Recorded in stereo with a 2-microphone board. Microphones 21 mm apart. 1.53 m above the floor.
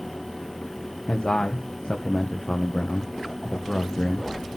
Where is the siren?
No siren in this recording.